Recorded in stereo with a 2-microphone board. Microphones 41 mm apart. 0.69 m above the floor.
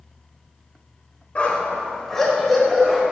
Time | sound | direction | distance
1.4 | a dog barking | 30° left (ahead or behind) | 1.2 m